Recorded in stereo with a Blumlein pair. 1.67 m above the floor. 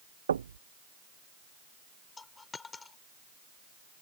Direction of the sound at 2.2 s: 15° left.